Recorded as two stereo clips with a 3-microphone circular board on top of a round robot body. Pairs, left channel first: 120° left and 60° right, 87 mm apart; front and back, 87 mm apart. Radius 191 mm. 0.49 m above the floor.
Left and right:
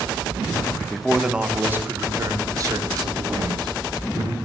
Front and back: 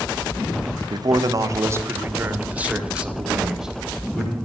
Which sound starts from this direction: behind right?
A man speaking, at 0.9 s.